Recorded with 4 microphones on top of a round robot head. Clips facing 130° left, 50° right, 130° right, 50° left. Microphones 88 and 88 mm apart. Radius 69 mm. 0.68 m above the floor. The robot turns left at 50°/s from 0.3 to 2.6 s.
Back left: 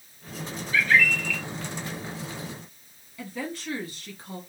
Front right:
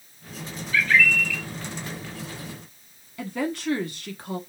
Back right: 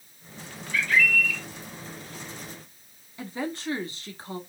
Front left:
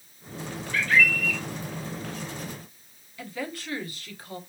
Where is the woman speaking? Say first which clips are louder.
Front right 6 dB, back right 3 dB; 70° right, 1.3 m.